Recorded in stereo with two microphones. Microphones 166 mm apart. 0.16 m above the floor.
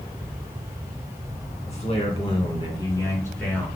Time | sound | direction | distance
1.6 | a man speaking | 40° left (ahead or behind) | 2 m